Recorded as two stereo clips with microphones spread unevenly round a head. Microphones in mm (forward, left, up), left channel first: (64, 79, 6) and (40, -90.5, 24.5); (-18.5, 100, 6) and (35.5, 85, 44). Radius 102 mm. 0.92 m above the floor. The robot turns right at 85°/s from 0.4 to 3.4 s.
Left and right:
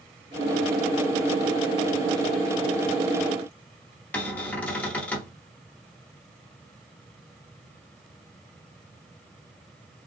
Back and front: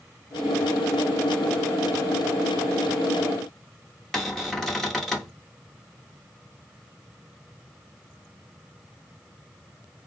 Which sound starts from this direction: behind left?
A cupboard door, at 4.1 s.